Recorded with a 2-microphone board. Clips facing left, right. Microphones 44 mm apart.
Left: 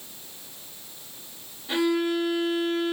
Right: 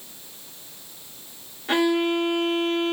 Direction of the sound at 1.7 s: 60° right (ahead or behind).